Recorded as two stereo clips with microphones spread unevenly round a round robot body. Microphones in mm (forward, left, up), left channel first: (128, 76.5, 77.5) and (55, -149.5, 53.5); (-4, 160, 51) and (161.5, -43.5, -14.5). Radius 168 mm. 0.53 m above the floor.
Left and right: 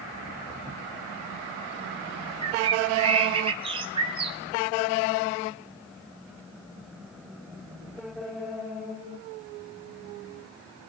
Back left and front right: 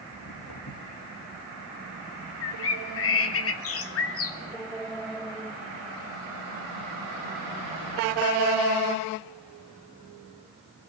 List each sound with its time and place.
0.1 s footsteps: 175° left, 6 m
2.4 s a bird: 175° right, 1.4 m